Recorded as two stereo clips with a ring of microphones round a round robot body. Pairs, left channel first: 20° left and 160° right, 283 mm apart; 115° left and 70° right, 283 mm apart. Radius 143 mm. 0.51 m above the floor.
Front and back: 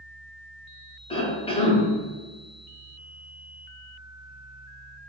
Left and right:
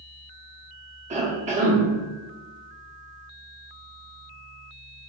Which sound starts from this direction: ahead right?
A cough, at 1.1 s.